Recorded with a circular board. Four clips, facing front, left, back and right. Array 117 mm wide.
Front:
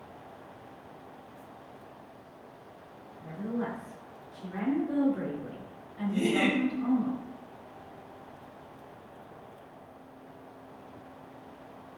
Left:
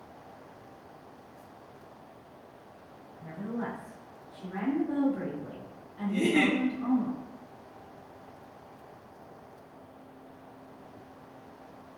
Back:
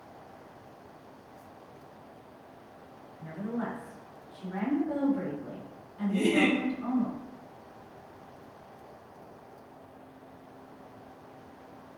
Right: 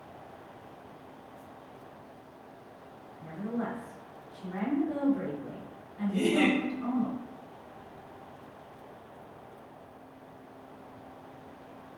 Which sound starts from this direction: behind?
A woman speaking, at 3.2 s.